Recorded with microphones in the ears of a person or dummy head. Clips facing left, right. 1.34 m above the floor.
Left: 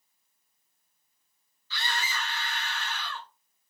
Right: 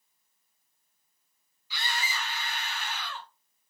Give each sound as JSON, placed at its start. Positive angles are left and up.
{"t": 1.7, "sound": "a scream", "side_deg": -15, "distance_m": 1.9}